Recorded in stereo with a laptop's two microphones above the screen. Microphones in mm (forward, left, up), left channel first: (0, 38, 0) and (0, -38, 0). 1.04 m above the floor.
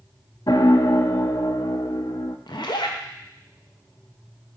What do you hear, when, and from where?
0.5 s a piano: 60° left (ahead or behind), 0.6 m
2.5 s a zipper: 70° left (ahead or behind), 0.9 m